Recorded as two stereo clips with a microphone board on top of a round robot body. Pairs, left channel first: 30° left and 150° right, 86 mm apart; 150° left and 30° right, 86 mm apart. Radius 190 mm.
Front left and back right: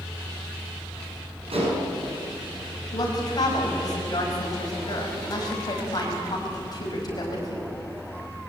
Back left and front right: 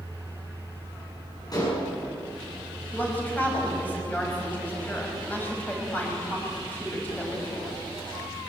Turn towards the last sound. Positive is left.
turn(degrees=75)